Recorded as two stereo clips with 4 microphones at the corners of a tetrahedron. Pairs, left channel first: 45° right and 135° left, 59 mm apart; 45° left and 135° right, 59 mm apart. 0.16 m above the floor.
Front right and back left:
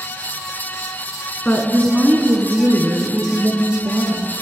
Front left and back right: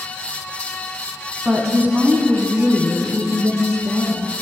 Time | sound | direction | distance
1.4 | a woman speaking | 85° right | 1.3 m